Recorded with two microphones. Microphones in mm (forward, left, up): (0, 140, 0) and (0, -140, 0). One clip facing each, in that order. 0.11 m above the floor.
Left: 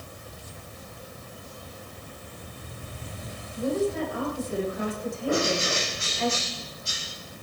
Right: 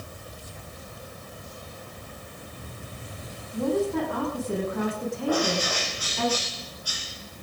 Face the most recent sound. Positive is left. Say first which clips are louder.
# even
turn(degrees=25)  # may be behind; listen again after turning